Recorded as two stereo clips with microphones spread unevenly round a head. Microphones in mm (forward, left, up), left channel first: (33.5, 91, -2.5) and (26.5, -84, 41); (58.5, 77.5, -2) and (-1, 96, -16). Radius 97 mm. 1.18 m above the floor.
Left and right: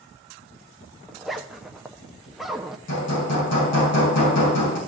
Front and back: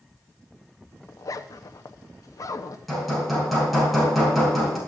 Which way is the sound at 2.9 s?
70° left.